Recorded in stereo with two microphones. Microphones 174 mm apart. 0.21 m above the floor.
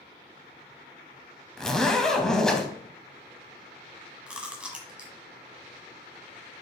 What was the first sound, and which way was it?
A zipper, 5° left (ahead or behind).